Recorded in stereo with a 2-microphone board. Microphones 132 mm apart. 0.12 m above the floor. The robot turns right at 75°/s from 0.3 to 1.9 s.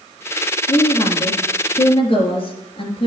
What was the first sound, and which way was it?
A woman speaking, 30° left.